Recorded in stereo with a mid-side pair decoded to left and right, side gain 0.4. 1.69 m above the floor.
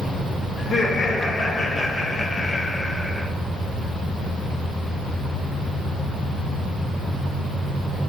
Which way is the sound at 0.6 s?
50° left.